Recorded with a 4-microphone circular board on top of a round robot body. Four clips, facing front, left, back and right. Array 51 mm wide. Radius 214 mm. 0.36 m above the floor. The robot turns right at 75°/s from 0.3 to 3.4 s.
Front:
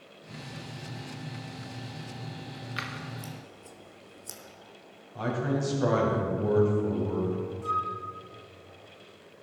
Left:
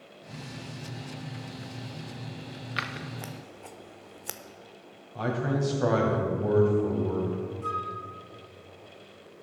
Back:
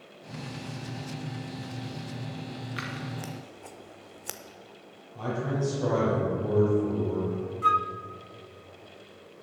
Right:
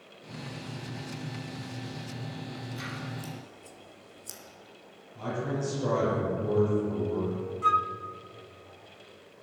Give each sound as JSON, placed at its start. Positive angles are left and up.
{"t": 2.8, "sound": "scissors", "azimuth_deg": 80, "distance_m": 1.0}
{"t": 5.2, "sound": "a man speaking", "azimuth_deg": 65, "distance_m": 3.5}
{"t": 7.6, "sound": "a flute", "azimuth_deg": -145, "distance_m": 0.7}